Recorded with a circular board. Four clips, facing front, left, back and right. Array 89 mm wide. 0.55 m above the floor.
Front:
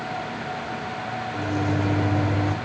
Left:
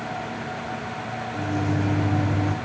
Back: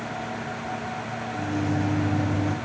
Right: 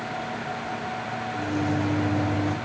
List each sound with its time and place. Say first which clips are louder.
1.3 s a microwave: even, front 1 dB; straight ahead, 1.4 m